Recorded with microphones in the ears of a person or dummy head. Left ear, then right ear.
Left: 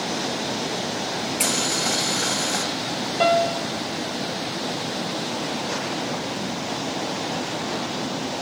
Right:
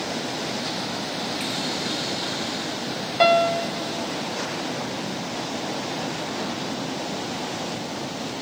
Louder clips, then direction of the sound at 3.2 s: Right 2 dB; 20° right (ahead or behind).